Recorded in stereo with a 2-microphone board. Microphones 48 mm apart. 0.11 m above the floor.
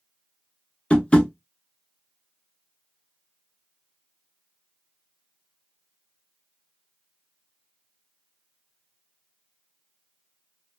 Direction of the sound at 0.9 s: 25° left (ahead or behind).